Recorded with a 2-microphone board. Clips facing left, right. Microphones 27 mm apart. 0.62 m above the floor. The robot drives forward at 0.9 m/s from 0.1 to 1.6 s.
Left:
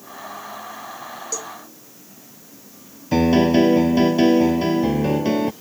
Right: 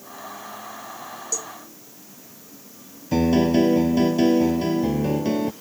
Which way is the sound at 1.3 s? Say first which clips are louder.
Even; 20° left (ahead or behind).